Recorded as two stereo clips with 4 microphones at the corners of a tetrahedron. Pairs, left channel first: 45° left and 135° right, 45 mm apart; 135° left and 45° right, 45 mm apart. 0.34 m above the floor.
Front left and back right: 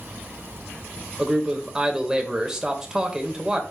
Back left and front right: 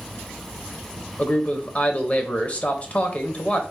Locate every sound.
1.2 s a man speaking: 155° left, 1.0 m